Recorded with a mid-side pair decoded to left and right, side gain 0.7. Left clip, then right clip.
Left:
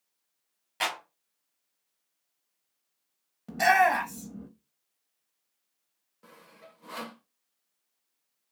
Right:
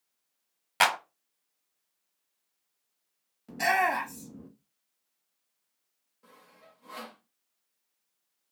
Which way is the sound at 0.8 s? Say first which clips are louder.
Right 7 dB; 45° right.